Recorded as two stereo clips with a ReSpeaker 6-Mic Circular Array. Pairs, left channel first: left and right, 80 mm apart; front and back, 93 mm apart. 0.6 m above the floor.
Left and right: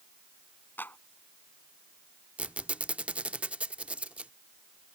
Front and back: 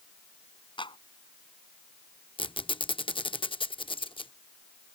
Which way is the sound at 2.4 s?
15° right.